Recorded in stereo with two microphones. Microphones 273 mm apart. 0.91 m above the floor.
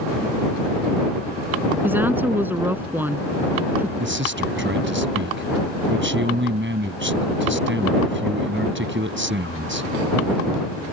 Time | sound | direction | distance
1.8 | a woman speaking | 5° right (ahead or behind) | ?
4.0 | a man speaking | 45° right (ahead or behind) | ?